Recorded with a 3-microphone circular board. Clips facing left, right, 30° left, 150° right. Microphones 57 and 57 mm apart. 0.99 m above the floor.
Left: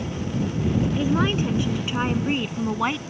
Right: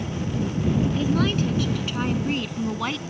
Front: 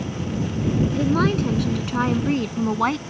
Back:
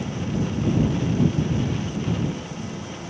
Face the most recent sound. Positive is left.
turn(degrees=20)